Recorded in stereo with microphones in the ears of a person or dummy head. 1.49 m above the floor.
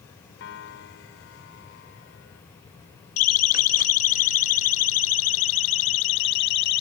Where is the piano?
80° left.